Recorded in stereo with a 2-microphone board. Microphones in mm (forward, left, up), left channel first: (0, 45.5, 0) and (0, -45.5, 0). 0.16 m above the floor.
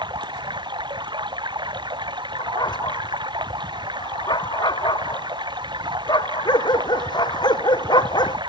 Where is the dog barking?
55° left (ahead or behind).